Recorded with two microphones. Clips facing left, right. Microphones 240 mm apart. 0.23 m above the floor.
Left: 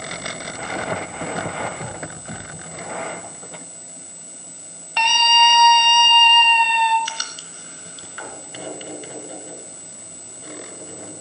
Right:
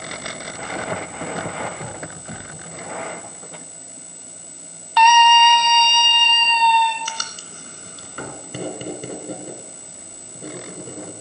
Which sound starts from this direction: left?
A scream, at 5.0 s.